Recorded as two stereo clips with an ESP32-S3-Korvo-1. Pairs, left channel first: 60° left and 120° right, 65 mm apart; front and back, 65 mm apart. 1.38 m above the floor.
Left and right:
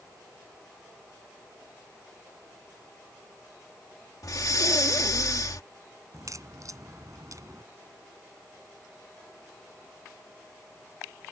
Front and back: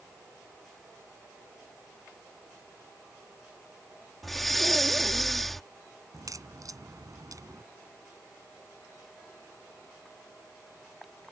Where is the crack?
155° right.